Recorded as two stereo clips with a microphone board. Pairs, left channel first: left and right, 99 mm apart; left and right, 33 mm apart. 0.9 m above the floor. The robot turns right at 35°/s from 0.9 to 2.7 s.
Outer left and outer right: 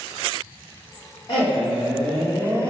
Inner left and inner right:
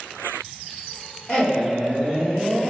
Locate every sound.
1.3 s a man speaking: 120° left, 1.6 m; by 2.7 s 170° left, 1.6 m